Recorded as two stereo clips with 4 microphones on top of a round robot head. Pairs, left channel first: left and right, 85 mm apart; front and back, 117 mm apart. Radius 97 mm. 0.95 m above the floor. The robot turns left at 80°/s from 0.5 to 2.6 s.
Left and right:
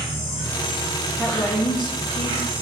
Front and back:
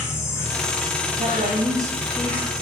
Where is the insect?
65° left, 2 m; by 2.6 s 100° right, 2 m.